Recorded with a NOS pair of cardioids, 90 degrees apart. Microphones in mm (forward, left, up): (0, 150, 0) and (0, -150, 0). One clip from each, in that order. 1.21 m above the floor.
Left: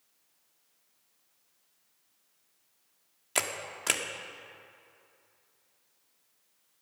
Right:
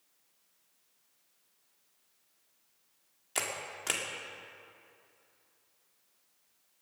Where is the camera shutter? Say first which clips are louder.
Left 3 dB; 30° left, 1.9 m.